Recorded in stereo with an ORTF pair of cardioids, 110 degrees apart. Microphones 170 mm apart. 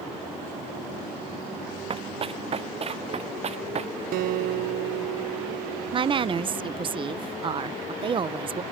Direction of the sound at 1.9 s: 35° right.